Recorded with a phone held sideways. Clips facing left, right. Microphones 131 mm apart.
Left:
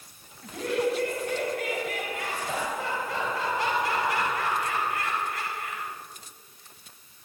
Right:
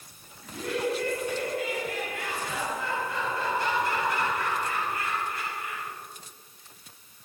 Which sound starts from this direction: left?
Laughter, at 0.4 s.